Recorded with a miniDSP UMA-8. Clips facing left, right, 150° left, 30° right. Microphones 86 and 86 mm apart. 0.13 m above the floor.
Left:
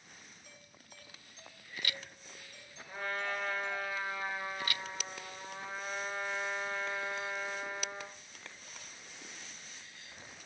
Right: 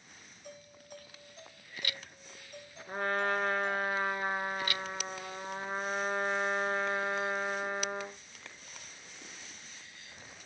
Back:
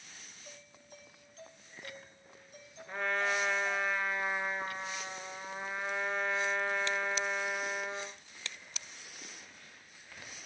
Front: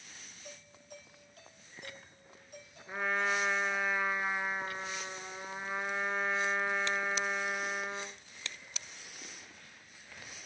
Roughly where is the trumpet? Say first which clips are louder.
Right 6 dB, even; right.